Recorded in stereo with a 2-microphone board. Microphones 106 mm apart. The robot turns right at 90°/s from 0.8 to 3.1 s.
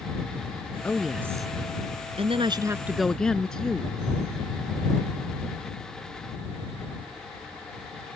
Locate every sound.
0.8 s a woman speaking: 165° left; by 3.9 s 5° left